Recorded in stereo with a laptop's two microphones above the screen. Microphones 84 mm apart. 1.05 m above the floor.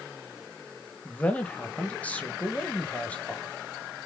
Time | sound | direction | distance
1.1 | a man speaking | 15° left (ahead or behind) | 1.0 m